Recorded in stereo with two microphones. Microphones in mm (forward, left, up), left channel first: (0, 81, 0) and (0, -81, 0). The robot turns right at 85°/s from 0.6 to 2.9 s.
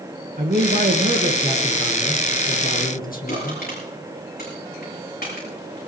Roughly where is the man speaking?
Right.